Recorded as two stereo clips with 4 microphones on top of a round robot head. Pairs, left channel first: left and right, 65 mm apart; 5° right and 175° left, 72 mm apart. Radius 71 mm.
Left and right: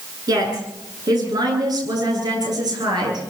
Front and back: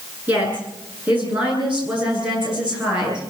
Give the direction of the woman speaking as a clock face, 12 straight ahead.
4 o'clock.